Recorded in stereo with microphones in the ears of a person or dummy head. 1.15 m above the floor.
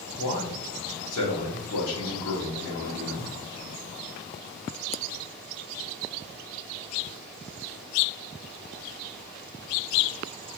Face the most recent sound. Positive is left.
turn(degrees=80)